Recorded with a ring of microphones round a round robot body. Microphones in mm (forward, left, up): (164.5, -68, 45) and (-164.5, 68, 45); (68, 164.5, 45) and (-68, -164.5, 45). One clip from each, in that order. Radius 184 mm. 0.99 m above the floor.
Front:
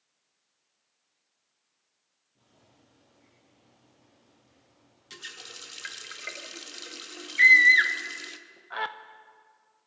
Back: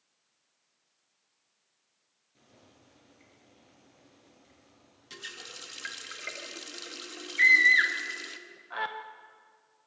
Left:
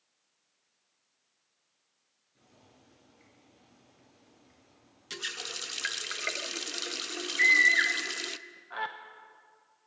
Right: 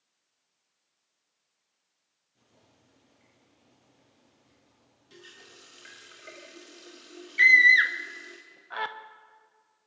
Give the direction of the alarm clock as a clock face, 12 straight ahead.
I don't hear an alarm clock.